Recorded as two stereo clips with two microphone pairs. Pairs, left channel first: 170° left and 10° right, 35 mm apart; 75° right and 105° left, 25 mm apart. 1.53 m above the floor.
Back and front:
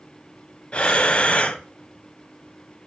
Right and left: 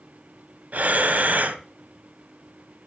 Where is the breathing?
110° left, 0.9 m.